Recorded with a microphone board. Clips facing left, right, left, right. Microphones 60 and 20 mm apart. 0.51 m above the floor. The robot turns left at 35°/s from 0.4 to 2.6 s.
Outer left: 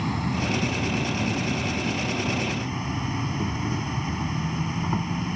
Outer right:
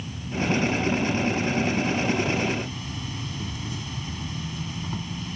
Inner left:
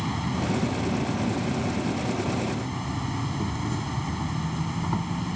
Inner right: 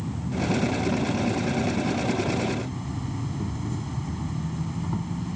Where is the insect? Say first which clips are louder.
Outer left 3 dB, inner left 1 dB; 115° left; by 5.4 s 35° left.